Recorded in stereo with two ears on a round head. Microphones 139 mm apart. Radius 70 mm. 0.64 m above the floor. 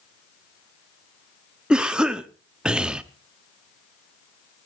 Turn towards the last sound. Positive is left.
turn(degrees=-5)  # may be behind; listen again after turning